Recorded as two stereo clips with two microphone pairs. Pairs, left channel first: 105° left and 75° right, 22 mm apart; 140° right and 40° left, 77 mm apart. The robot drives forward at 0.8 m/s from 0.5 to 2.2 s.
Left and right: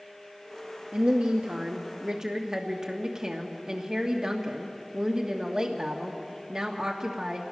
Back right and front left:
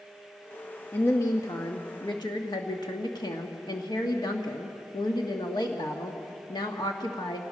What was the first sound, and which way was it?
A woman speaking, 85° right.